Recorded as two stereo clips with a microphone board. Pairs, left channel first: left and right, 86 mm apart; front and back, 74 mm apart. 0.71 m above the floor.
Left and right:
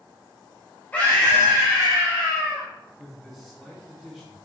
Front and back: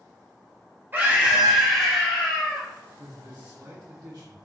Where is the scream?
145° left, 1.3 m; by 2.7 s 55° left, 1.8 m.